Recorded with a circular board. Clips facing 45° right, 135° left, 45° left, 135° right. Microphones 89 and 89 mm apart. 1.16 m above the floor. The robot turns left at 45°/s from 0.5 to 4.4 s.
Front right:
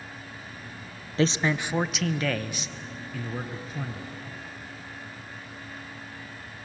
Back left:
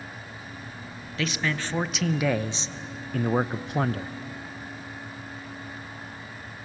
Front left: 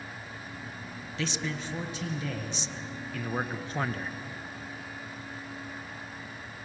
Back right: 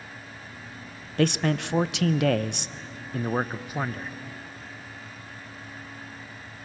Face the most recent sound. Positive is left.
turn(degrees=115)